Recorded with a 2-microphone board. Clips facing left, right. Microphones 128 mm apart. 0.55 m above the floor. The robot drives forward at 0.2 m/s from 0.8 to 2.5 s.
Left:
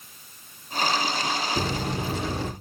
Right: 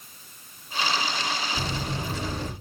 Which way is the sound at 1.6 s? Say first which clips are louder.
Left 3 dB; 60° left (ahead or behind).